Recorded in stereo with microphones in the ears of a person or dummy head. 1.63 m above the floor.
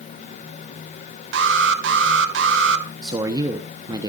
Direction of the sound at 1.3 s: 70° right (ahead or behind).